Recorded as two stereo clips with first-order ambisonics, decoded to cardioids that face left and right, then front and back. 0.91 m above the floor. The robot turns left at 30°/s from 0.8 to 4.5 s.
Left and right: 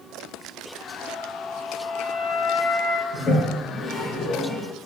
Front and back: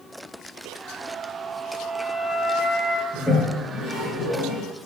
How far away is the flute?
About 0.9 m.